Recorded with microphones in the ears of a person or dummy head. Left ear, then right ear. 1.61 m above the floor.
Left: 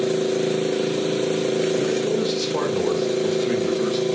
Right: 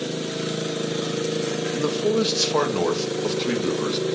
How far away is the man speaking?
About 1.9 m.